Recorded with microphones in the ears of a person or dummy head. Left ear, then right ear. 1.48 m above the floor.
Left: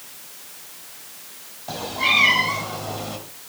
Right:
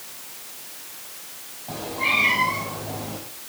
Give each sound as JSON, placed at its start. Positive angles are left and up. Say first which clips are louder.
{"t": 1.7, "sound": "a cat meowing", "louder": "left 3 dB", "side_deg": 45, "distance_m": 5.0}